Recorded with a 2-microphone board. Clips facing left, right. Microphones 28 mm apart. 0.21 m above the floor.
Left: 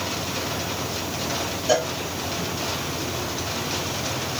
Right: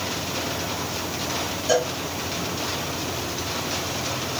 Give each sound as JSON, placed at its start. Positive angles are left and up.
{"t": 1.7, "sound": "a cowbell", "side_deg": 15, "distance_m": 1.6}